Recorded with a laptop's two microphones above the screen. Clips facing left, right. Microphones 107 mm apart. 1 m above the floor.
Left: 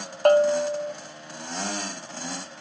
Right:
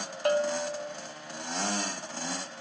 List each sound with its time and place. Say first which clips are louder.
0.2 s a bell: left 9 dB; 55° left (ahead or behind), 0.8 m